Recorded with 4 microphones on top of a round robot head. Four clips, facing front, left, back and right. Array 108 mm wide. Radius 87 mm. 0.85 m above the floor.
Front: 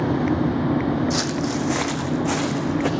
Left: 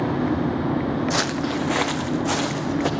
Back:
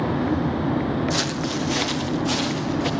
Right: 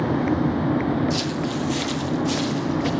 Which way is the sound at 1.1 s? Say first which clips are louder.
Left 1 dB, front 2 dB; 85° left.